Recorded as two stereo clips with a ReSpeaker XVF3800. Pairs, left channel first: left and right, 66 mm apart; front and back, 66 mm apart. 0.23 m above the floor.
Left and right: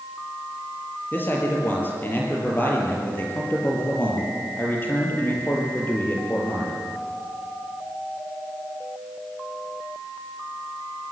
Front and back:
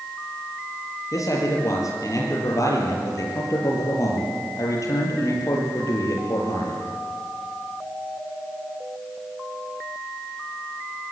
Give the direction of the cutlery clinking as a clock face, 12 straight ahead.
I don't hear cutlery clinking.